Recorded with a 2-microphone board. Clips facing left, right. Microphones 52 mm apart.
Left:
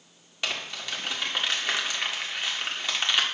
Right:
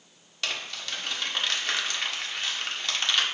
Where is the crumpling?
15° left (ahead or behind), 1.7 m.